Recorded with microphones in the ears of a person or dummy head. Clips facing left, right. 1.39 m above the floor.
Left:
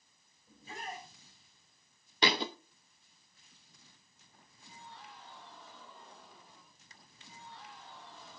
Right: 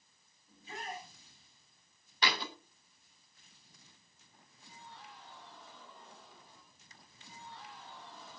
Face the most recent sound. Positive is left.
turn(degrees=20)  # may be behind; listen again after turning